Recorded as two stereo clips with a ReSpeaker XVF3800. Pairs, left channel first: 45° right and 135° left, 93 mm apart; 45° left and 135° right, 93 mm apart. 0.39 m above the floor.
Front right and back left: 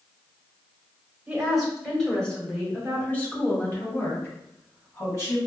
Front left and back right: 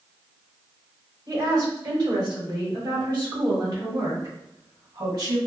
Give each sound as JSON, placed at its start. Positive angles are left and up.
{"t": 1.3, "sound": "a woman speaking", "azimuth_deg": -145, "distance_m": 1.6}